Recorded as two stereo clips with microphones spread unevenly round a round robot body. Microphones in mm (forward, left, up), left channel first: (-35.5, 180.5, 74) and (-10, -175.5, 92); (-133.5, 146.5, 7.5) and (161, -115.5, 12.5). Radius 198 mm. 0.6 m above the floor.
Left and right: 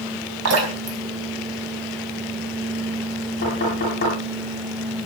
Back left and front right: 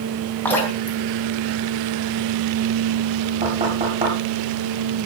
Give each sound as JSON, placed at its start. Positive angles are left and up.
{"t": 0.5, "sound": "dripping", "azimuth_deg": -135, "distance_m": 4.5}
{"t": 3.4, "sound": "knocking", "azimuth_deg": 30, "distance_m": 9.5}